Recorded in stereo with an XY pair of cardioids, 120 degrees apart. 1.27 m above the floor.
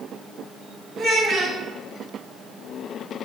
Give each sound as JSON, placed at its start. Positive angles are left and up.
{"t": 1.0, "sound": "a child speaking", "azimuth_deg": -50, "distance_m": 2.5}